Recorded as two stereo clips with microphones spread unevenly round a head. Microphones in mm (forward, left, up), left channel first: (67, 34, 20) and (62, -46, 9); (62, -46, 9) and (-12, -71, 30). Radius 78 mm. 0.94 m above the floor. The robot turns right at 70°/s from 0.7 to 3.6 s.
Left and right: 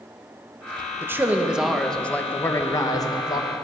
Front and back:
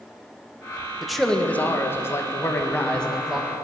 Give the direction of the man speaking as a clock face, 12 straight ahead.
2 o'clock.